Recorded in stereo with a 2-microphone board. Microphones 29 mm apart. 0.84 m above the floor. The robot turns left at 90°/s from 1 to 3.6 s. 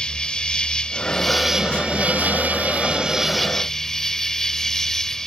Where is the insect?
35° left; by 5.3 s 160° left.